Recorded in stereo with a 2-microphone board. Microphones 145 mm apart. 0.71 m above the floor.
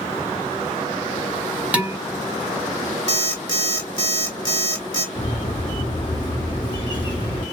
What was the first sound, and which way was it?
Dishes clattering, 10° right (ahead or behind).